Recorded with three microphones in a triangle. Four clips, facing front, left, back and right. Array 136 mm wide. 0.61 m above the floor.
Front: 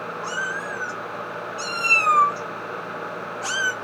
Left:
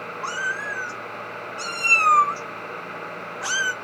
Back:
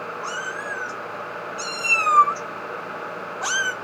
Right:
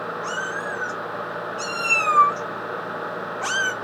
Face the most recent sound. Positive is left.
turn(degrees=-115)